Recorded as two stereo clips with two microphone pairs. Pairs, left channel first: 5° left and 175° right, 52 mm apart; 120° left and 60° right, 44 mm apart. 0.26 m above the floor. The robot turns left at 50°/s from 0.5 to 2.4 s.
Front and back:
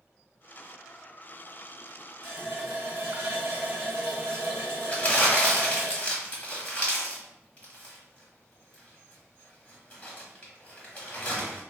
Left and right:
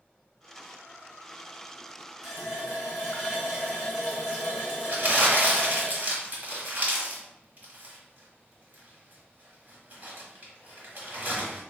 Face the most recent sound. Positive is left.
turn(degrees=-50)